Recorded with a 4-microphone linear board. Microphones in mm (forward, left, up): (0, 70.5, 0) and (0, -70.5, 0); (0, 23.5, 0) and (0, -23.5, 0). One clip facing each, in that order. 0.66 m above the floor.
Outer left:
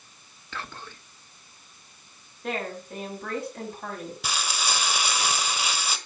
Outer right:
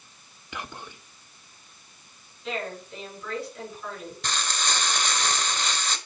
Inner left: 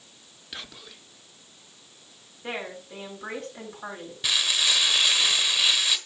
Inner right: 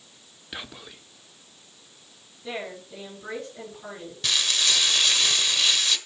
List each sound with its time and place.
0.5 s whispering: 15° right (ahead or behind), 0.9 m
2.4 s a woman speaking: 55° left (ahead or behind), 7.5 m
4.2 s frying: 10° left (ahead or behind), 1.3 m